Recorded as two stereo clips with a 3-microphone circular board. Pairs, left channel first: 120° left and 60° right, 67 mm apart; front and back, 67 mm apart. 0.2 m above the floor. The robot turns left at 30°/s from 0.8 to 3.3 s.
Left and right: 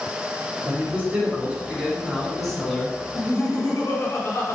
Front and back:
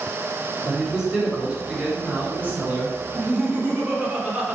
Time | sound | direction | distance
0.7 | a man speaking | 100° right | 1.7 m
3.1 | laughter | 120° left | 1.7 m